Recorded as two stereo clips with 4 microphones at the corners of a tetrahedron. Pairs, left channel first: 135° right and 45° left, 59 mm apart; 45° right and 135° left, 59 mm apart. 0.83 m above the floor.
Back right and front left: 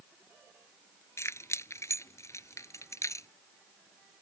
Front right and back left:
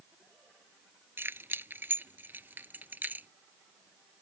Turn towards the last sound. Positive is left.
turn(degrees=-165)